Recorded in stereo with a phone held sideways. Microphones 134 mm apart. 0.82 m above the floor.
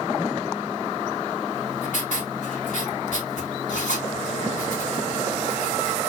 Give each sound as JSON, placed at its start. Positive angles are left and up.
{"t": 1.5, "sound": "writing", "side_deg": 70, "distance_m": 2.5}